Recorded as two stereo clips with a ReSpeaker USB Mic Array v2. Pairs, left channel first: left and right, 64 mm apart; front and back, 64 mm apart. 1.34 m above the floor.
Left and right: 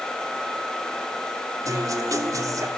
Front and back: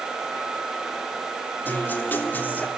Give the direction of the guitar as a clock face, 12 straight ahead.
2 o'clock.